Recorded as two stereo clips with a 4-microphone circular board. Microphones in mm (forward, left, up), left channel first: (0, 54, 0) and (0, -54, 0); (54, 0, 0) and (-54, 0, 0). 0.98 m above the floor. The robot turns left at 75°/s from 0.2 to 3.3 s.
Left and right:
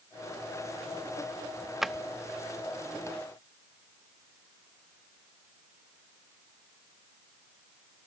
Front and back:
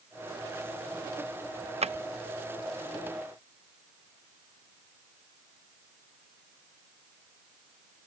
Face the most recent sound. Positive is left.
turn(degrees=70)